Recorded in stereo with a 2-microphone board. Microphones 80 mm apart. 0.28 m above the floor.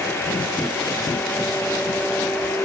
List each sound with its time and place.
Only background noise.